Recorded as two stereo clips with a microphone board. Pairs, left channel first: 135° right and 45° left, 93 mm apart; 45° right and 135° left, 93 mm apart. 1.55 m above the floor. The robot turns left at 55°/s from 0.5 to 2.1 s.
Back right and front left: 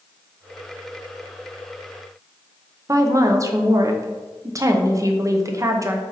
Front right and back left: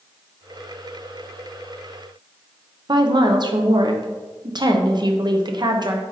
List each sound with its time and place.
2.9 s a woman speaking: 100° left, 0.6 m